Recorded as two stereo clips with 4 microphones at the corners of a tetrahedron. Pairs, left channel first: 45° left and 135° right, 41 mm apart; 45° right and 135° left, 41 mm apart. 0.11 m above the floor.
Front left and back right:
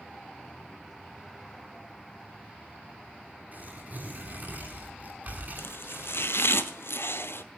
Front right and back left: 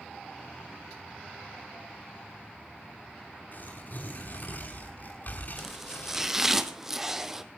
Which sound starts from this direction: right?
Tearing paper, at 3.5 s.